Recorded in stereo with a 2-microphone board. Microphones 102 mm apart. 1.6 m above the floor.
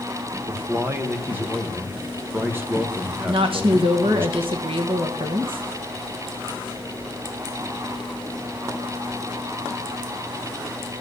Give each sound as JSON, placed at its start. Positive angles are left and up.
{"t": 0.5, "sound": "a man speaking", "side_deg": -20, "distance_m": 1.8}
{"t": 3.3, "sound": "a woman speaking", "side_deg": -60, "distance_m": 1.4}